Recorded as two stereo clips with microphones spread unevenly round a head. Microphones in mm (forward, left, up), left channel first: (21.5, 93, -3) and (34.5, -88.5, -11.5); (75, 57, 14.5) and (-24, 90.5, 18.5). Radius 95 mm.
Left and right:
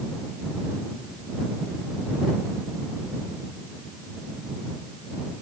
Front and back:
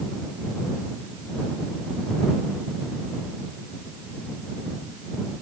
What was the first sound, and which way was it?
Only background noise.